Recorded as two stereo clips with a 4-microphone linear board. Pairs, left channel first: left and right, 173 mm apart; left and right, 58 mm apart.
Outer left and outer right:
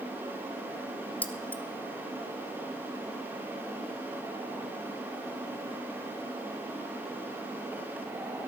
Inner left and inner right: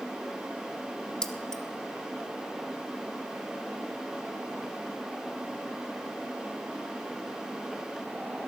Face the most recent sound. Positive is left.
turn(degrees=10)  # may be behind; listen again after turning